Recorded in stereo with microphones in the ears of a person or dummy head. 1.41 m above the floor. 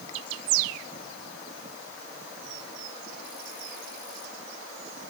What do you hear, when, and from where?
Only background noise.